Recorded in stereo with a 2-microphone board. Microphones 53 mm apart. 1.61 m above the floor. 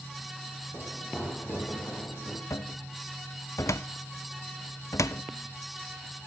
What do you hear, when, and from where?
0.7 s running footsteps: 30° left (ahead or behind), 3.5 m; by 2.4 s 55° left (ahead or behind), 4 m
2.5 s a cupboard door: 65° left (ahead or behind), 0.5 m